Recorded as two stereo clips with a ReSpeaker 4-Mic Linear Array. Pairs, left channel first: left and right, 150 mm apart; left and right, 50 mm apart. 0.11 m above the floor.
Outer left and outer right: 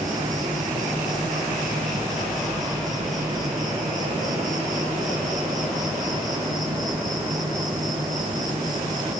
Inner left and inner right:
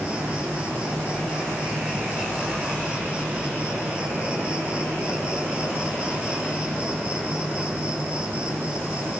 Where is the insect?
25° right (ahead or behind), 5.5 m.